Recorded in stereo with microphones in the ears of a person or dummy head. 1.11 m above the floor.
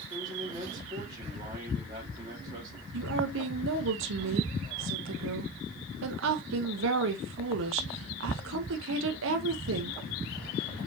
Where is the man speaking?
30° right (ahead or behind), 2.5 m.